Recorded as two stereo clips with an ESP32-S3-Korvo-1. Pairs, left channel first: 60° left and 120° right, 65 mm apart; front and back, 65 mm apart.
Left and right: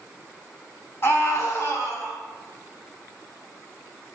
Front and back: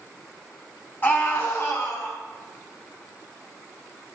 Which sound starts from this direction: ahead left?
A scream, at 1.0 s.